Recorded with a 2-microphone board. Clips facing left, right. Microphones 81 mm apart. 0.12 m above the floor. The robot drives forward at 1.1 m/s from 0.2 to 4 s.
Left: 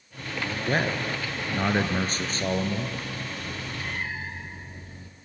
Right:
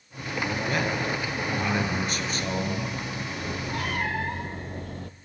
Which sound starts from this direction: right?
A cat meowing, at 3.4 s.